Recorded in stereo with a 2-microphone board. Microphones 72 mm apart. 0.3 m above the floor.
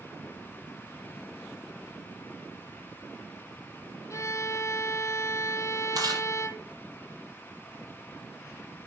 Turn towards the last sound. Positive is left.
turn(degrees=-60)  # may be behind; listen again after turning